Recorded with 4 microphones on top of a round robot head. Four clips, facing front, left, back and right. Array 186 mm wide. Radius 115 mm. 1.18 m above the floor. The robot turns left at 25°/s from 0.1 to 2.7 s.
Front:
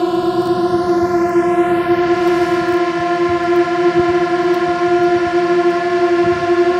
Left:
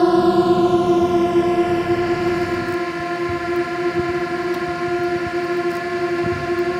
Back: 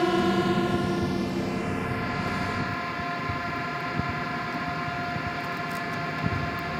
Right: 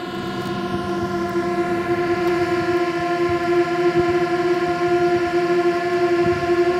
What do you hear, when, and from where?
0.0 s a drone: 55° left; by 6.8 s 10° right